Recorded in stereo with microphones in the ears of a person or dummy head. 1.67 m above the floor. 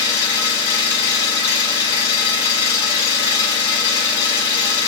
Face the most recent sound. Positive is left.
turn(degrees=20)  # may be behind; listen again after turning